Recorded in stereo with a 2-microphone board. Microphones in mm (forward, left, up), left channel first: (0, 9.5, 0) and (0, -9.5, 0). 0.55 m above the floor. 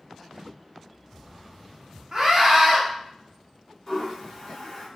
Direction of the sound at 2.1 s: 25° right (ahead or behind).